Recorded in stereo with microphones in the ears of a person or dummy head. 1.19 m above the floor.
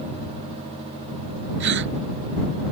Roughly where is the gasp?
Right.